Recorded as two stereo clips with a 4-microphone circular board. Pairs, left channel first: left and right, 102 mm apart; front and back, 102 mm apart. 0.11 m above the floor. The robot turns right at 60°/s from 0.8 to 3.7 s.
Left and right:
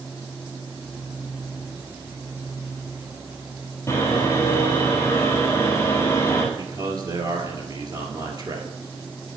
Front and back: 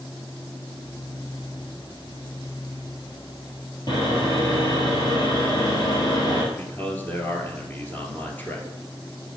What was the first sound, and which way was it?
Sawing, 35° left.